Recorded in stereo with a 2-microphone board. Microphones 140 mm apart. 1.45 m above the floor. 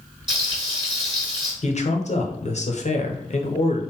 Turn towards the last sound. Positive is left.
turn(degrees=55)  # may be behind; listen again after turning